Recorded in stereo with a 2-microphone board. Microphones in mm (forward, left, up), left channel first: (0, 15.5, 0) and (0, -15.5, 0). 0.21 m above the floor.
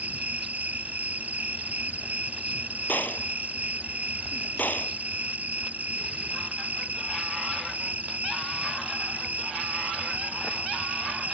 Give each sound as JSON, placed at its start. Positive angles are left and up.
{"t": 0.0, "sound": "an insect", "side_deg": -60}
{"t": 2.9, "sound": "a gunshot", "side_deg": 80}